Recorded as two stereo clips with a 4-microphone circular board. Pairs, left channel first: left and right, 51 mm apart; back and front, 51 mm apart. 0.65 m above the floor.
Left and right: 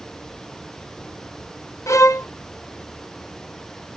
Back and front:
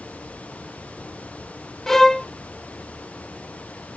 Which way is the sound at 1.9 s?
100° left.